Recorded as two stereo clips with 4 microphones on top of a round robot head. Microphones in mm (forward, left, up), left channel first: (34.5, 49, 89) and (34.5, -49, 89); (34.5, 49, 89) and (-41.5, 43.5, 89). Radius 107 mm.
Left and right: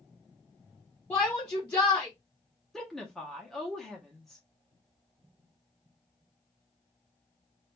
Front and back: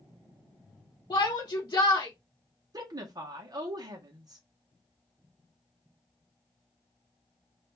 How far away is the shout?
About 0.9 m.